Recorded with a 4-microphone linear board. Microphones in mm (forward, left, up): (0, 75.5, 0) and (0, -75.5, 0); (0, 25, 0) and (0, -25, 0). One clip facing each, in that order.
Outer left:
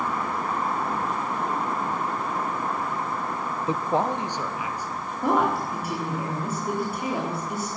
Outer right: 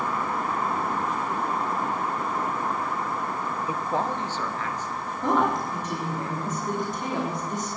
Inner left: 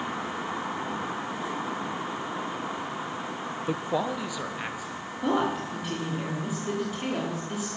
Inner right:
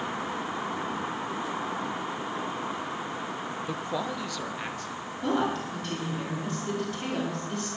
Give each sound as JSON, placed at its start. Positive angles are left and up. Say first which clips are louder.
{"t": 3.7, "sound": "a man speaking", "louder": "outer left 4 dB, inner left 5 dB", "side_deg": 25, "distance_m": 0.7}
{"t": 5.2, "sound": "a woman speaking", "louder": "outer left 1 dB, inner left 1 dB", "side_deg": 10, "distance_m": 4.0}